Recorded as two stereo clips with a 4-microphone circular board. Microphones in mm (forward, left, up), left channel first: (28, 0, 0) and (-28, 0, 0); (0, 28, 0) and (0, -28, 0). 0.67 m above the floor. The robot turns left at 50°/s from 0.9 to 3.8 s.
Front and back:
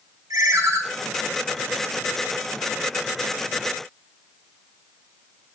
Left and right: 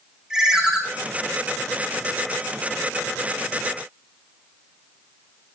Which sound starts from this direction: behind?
A ringtone, at 0.3 s.